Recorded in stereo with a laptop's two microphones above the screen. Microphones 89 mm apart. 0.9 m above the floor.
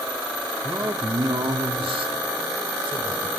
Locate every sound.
0.6 s a man speaking: 25° right (ahead or behind), 1.7 m; by 3.3 s 65° right (ahead or behind), 3 m